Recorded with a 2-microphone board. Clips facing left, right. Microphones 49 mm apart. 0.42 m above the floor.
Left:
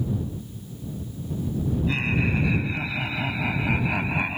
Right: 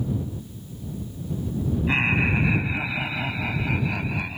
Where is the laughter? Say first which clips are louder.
Right 5 dB; 35° right (ahead or behind); by 4.4 s 30° left (ahead or behind).